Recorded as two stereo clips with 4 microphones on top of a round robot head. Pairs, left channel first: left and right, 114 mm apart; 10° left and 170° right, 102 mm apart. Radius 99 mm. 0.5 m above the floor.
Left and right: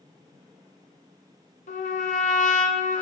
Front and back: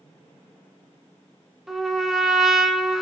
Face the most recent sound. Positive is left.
turn(degrees=105)